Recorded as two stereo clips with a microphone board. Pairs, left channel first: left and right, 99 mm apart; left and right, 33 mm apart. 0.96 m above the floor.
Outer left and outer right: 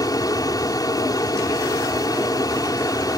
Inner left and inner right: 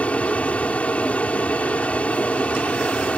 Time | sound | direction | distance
0.0 | an aircraft | 40° left (ahead or behind) | ?